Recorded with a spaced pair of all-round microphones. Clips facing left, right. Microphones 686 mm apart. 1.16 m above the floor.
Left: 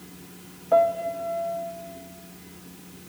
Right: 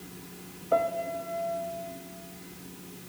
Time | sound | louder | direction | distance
0.7 | a piano | left 6 dB | 25° left (ahead or behind) | 0.8 m